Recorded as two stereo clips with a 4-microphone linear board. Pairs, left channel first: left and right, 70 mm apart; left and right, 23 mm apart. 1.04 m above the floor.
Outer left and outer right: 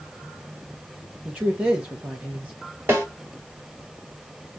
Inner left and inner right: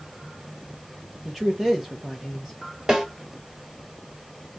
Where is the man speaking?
20° right (ahead or behind), 0.9 m.